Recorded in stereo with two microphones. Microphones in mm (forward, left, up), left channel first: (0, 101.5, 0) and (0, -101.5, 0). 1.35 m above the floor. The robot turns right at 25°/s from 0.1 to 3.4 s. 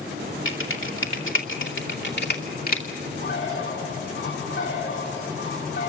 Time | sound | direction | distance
0.5 | typing on a keyboard | 75° left (ahead or behind) | 2.5 m
3.2 | a bird | 85° left | 5 m